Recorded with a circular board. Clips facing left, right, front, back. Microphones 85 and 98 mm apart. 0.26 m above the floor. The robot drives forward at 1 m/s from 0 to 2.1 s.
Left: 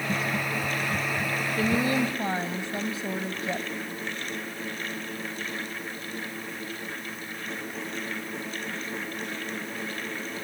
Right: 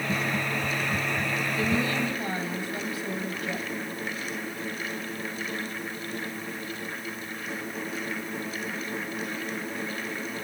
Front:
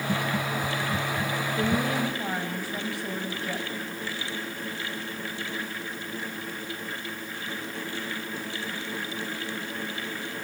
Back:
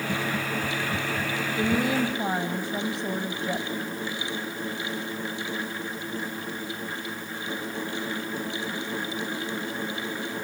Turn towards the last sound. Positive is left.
turn(degrees=135)